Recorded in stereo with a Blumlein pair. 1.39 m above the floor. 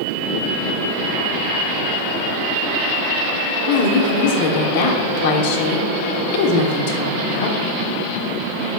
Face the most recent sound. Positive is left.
turn(degrees=45)